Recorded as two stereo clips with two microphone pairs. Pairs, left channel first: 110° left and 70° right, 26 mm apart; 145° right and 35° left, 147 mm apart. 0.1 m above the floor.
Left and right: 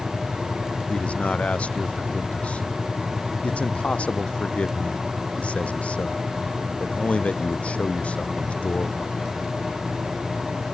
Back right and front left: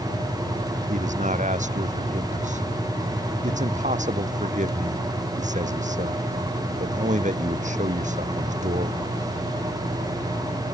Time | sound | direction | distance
0.9 | a man speaking | 75° left | ?